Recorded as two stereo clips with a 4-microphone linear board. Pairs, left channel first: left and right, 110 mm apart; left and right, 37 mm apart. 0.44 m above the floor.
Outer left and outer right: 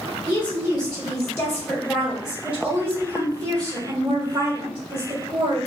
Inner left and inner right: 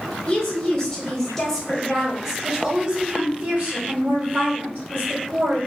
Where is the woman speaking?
40° left (ahead or behind), 1.8 m; by 5.6 s 60° right (ahead or behind), 2 m.